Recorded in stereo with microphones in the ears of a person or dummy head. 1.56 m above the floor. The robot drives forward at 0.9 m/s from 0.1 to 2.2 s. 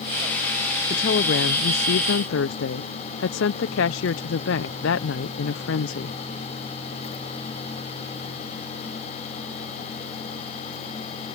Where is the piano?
I don't hear a piano.